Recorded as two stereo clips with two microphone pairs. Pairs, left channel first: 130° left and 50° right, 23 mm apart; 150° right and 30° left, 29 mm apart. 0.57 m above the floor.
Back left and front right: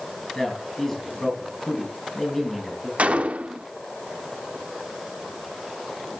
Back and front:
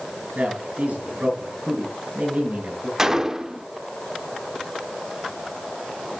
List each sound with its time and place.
0.3 s a man speaking: 50° left, 6.5 m
3.0 s a gunshot: 45° right, 0.6 m